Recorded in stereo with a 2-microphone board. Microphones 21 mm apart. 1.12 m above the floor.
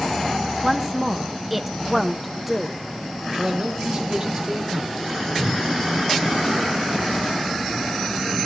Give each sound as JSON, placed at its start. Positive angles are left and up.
{"t": 0.6, "sound": "a woman speaking", "side_deg": -5, "distance_m": 1.1}
{"t": 3.3, "sound": "a man speaking", "side_deg": -35, "distance_m": 2.0}
{"t": 5.4, "sound": "a whoosh", "side_deg": -70, "distance_m": 4.5}